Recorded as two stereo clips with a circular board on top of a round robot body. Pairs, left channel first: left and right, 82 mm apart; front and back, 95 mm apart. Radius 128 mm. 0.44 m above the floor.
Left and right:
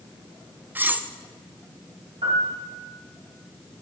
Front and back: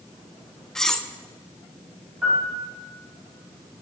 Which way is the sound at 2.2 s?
105° right.